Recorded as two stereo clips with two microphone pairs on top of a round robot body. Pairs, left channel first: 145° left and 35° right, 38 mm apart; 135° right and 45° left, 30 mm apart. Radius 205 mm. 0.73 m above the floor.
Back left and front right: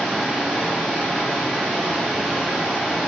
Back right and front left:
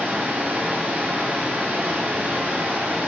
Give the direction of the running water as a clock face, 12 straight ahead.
11 o'clock.